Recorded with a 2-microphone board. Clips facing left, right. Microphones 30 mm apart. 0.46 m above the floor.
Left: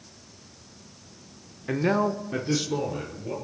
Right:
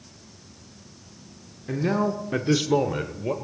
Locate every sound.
1.7 s a man speaking: 30° left (ahead or behind), 0.8 m; by 3.3 s 60° right (ahead or behind), 1.4 m